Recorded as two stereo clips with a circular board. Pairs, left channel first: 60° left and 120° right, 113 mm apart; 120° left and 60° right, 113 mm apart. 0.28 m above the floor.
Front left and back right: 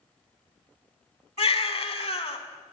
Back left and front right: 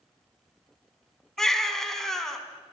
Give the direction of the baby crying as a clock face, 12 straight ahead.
11 o'clock.